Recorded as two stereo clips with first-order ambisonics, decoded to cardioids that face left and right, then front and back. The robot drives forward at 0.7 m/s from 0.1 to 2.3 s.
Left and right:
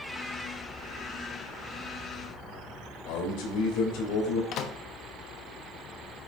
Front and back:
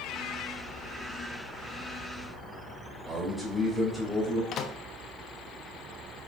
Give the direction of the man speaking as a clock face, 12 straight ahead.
9 o'clock.